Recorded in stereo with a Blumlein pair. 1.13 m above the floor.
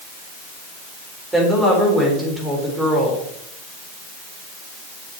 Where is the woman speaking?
10° right, 3.5 m.